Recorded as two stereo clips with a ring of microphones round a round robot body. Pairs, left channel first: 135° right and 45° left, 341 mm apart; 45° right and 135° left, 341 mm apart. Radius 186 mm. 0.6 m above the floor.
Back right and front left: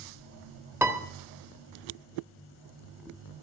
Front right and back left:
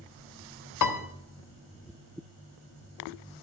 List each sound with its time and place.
0.8 s a piano: 35° right, 1.4 m